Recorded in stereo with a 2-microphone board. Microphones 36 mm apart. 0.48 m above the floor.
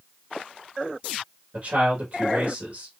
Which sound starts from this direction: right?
A man speaking, at 1.5 s.